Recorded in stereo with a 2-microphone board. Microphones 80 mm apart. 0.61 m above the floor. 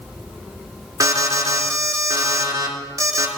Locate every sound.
1.0 s an alarm: 40° right (ahead or behind), 2 m